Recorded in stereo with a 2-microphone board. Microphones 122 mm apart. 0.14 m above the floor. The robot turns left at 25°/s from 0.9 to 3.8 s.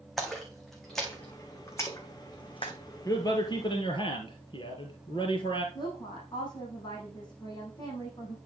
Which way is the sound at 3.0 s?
25° left (ahead or behind).